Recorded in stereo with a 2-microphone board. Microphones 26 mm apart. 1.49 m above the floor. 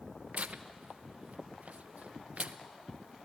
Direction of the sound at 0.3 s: 65° right (ahead or behind).